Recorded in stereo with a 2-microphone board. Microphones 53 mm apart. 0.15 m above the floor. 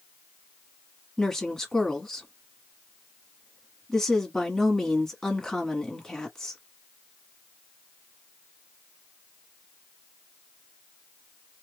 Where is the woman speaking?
10° left (ahead or behind), 1.1 m.